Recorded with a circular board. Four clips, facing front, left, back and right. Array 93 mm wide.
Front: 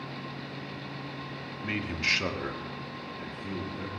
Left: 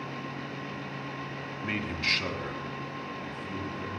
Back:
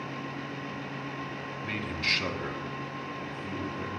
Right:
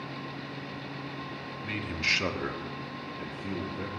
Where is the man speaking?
65° left, 1.1 m; by 3.9 s 90° right, 2.5 m.